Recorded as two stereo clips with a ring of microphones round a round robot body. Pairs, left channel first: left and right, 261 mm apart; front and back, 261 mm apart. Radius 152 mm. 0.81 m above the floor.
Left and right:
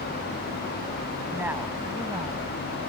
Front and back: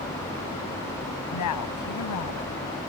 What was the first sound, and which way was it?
A woman speaking, 5° right.